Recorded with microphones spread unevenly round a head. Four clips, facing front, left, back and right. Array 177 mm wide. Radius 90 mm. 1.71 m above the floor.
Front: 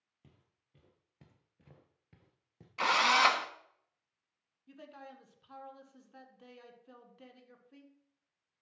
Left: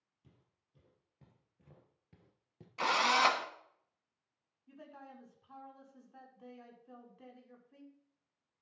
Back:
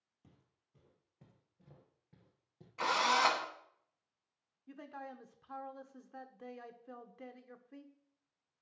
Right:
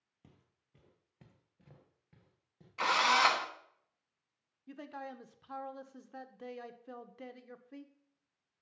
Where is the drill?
45° left, 1.1 m.